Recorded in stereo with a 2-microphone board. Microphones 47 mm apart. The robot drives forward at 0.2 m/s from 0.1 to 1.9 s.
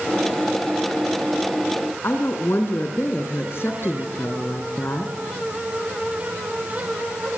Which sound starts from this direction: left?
A woman speaking, at 2.0 s.